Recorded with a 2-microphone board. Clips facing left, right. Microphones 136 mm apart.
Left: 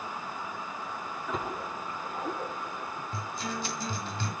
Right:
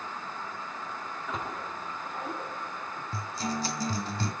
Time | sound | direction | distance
1.3 | a splash | 5° left (ahead or behind) | 7.5 m
3.1 | a guitar | 35° right (ahead or behind) | 2 m